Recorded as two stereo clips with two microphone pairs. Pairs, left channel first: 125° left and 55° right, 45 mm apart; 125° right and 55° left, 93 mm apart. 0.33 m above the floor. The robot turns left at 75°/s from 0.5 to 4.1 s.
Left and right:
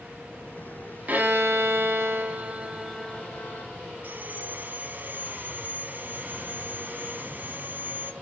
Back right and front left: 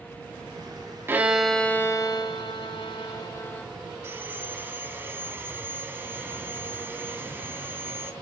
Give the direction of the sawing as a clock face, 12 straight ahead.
12 o'clock.